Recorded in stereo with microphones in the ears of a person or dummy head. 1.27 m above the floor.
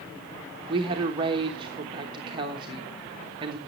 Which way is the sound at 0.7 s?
30° right (ahead or behind).